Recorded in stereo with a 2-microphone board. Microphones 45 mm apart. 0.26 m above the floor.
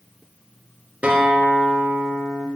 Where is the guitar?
30° right (ahead or behind), 2 m.